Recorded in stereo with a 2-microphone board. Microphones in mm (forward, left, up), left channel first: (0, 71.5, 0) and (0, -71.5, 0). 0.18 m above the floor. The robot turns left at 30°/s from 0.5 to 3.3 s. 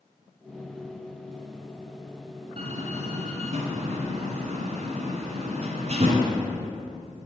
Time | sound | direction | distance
2.6 | a door slam | 50° right (ahead or behind) | 1.2 m